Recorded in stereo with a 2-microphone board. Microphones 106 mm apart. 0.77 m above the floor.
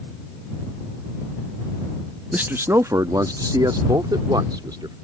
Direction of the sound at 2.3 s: 15° right (ahead or behind).